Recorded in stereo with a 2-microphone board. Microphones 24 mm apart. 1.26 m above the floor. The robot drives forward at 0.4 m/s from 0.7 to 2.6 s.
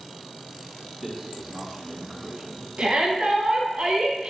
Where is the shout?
55° right (ahead or behind), 1.1 m.